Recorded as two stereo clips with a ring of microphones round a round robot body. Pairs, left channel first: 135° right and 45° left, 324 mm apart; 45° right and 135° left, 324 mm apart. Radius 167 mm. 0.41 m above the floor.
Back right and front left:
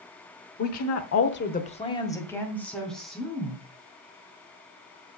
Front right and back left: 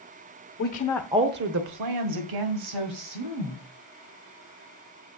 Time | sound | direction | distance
0.6 | a woman speaking | 95° right | 1.2 m